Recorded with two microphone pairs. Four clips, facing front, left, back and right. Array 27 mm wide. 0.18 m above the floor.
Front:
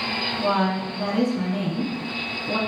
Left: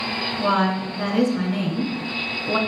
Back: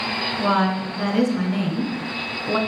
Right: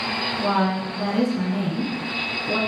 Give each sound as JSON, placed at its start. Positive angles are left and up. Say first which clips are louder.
{"t": 0.4, "sound": "a woman speaking", "louder": "left 2 dB, back 3 dB", "azimuth_deg": 145, "distance_m": 1.8}